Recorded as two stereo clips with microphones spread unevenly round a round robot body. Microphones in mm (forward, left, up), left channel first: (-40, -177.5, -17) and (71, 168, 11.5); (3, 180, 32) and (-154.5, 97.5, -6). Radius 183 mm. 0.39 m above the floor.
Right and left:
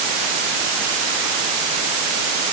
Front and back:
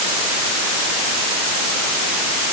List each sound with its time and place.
Only background noise.